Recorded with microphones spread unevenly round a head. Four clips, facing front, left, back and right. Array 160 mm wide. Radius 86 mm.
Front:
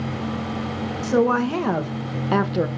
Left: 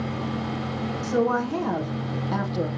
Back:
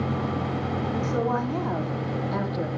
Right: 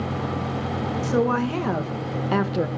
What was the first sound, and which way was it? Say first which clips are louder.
A woman speaking: right 1 dB, front 10 dB; 15° right.